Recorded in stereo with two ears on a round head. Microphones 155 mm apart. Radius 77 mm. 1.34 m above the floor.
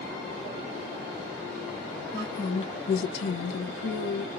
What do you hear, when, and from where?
2.1 s a woman speaking: 10° left (ahead or behind), 0.7 m; by 4.3 s 65° left (ahead or behind), 1.0 m